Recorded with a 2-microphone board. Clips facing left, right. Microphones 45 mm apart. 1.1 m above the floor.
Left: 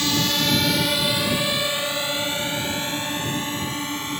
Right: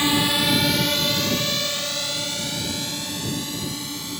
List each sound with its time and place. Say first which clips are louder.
0.0 s a drone: right 2 dB; 25° right (ahead or behind); by 4.2 s 35° left (ahead or behind)